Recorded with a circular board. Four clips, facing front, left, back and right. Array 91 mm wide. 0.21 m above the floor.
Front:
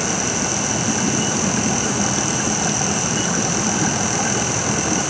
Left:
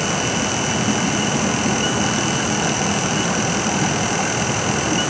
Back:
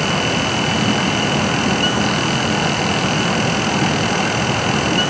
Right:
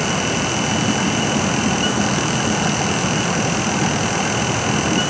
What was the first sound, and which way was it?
Only background noise.